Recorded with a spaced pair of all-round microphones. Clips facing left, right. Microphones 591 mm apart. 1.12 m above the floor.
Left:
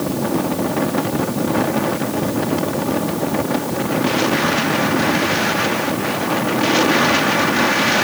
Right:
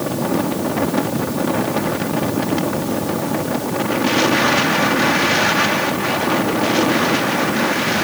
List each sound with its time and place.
Only background noise.